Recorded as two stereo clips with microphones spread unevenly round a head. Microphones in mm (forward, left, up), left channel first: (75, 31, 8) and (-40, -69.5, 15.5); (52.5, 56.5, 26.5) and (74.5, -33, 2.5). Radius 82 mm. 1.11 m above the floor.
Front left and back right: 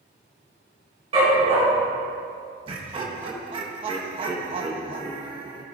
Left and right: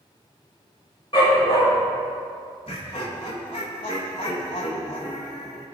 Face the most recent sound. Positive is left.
turn(degrees=160)